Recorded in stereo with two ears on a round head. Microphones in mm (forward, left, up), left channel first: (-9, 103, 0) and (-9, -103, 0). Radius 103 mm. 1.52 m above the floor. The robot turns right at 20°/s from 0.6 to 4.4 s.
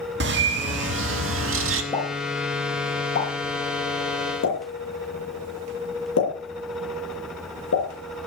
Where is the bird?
50° right (ahead or behind), 1.6 m; by 1.8 s 60° right (ahead or behind), 1.6 m.